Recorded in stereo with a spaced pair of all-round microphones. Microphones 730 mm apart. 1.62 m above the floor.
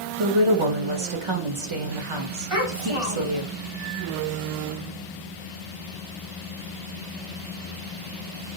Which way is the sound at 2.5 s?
50° right (ahead or behind).